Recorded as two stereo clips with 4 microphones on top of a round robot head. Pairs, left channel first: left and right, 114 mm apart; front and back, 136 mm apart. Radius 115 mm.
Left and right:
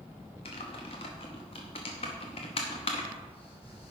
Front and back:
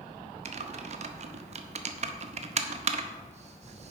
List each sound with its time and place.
0.5 s typing on a keyboard: 145° left, 0.7 m